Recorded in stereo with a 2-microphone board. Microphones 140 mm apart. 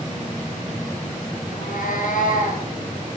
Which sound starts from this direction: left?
A cat meowing, at 1.5 s.